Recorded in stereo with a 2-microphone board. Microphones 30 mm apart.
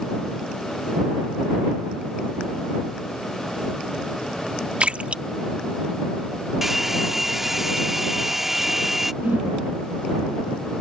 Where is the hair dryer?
10° right (ahead or behind).